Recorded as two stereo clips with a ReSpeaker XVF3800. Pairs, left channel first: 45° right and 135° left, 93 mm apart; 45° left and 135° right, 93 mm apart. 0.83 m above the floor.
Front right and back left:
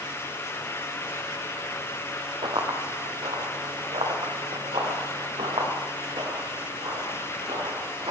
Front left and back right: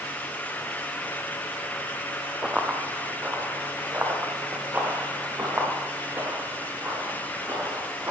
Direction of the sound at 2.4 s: 145° left.